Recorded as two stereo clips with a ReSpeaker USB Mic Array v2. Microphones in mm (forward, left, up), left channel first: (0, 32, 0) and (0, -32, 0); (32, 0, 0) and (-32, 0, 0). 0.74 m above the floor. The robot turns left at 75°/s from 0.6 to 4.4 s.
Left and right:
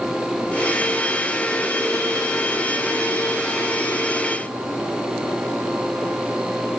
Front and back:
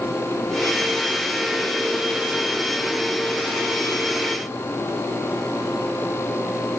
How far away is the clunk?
No clunk in this recording.